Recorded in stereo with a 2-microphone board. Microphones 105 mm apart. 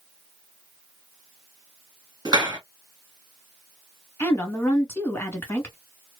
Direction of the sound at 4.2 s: 20° left (ahead or behind).